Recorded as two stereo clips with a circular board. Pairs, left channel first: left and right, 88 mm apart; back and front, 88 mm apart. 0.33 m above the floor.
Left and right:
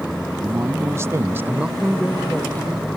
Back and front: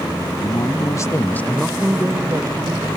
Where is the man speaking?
145° right; by 2.9 s 25° left.